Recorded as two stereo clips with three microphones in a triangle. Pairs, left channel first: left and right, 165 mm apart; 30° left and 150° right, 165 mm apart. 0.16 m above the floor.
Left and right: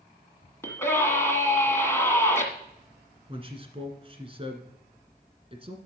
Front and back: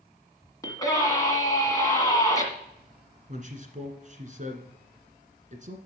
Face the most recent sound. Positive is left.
turn(degrees=-135)